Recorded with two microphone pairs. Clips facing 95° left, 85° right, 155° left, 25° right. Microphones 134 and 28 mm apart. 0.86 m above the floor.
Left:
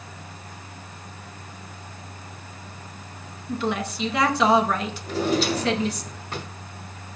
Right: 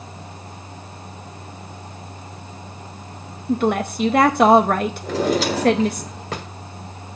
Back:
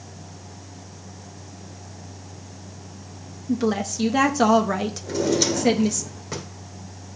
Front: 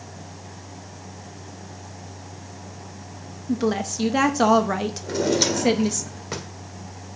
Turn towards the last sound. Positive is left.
turn(degrees=-95)